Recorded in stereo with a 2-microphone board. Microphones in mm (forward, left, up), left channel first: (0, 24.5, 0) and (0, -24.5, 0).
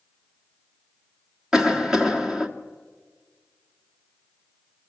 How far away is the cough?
About 1.6 m.